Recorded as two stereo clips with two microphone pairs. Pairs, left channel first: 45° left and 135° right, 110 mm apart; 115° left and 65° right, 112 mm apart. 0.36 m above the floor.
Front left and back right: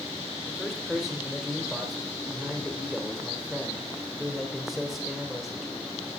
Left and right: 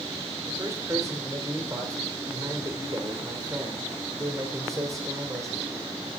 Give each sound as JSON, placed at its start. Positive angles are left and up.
{"t": 0.5, "sound": "a man speaking", "azimuth_deg": -45, "distance_m": 1.6}